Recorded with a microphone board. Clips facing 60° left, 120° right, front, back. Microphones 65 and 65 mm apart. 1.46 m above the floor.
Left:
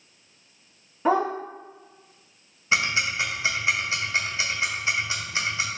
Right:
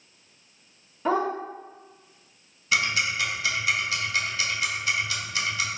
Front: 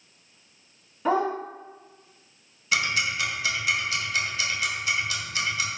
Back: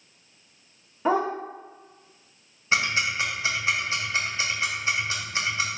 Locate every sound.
1.1 s a dog barking: 120° left, 1.1 m
2.7 s ticking: 125° left, 0.7 m